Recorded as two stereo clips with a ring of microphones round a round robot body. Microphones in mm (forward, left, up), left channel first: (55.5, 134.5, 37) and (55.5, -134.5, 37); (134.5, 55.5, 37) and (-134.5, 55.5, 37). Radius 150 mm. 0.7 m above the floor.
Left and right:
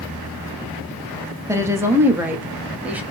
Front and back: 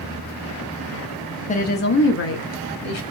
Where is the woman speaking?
20° right, 0.8 m; by 3.0 s 5° right, 1.5 m.